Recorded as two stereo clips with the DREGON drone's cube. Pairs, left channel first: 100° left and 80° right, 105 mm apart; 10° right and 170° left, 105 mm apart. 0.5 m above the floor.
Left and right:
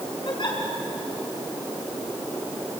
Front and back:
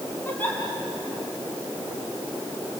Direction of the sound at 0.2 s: 60° left.